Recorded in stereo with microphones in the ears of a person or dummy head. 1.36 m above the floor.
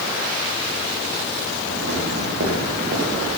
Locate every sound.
1.7 s footsteps: 60° right (ahead or behind), 10 m; by 3.3 s 55° right (ahead or behind), 10.5 m